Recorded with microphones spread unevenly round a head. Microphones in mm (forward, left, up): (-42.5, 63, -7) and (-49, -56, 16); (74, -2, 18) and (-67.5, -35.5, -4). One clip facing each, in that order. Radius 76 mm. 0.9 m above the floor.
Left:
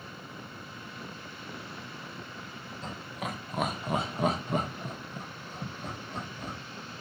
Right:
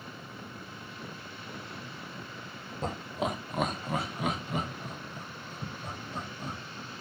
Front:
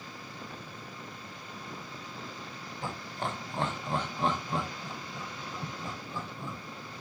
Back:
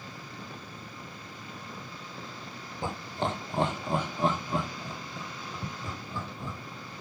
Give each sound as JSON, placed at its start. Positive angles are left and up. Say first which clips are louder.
{"t": 2.8, "sound": "laughter", "louder": "right 6 dB, back 5 dB", "azimuth_deg": -125, "distance_m": 0.6}